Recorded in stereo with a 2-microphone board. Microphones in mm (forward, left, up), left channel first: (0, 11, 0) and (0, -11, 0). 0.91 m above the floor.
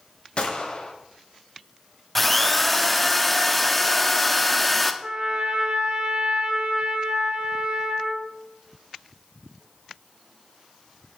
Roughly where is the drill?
Centre.